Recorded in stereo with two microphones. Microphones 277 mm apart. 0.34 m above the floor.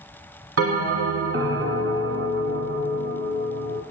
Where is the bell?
55° right (ahead or behind), 0.6 m.